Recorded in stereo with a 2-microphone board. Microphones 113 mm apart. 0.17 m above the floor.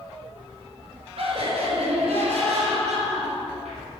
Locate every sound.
1.2 s laughter: 60° right (ahead or behind), 2.0 m; by 3.8 s 75° right (ahead or behind), 4 m